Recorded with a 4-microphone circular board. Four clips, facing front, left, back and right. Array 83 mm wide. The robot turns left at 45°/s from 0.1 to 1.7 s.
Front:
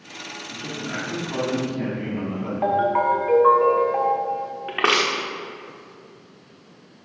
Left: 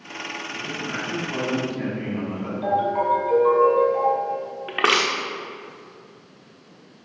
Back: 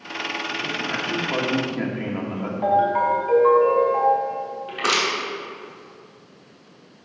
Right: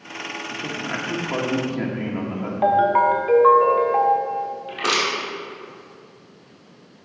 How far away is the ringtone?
About 1.0 m.